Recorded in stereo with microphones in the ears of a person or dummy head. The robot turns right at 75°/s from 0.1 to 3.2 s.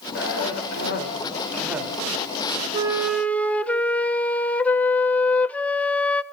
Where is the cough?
65° left, 4.5 m; by 1.9 s 165° right, 4.5 m.